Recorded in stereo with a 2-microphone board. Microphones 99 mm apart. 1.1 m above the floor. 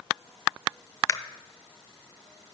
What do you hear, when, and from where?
1.1 s a camera shutter: 30° left (ahead or behind), 0.6 m